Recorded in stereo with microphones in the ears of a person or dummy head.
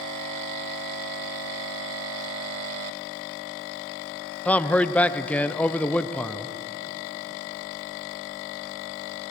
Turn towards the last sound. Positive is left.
turn(degrees=10)  # may be behind; listen again after turning